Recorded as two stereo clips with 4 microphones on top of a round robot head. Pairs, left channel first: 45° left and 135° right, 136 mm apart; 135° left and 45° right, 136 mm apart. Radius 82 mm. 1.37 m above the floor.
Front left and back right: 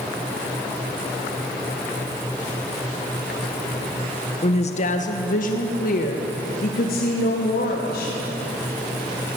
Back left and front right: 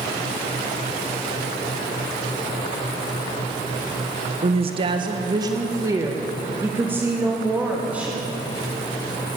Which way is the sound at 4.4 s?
Straight ahead.